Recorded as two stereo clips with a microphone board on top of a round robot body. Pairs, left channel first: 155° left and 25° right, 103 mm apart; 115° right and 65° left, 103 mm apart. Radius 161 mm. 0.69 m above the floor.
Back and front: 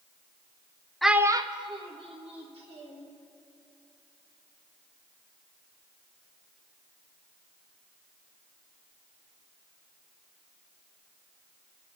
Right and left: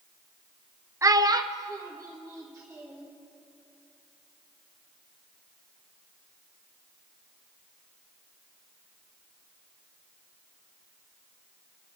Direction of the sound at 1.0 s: 75° left.